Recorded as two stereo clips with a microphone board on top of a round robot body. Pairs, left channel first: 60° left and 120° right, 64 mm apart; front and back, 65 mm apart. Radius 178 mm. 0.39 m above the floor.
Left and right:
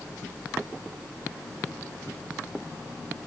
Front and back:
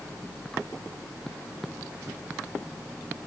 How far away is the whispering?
No whispering in this recording.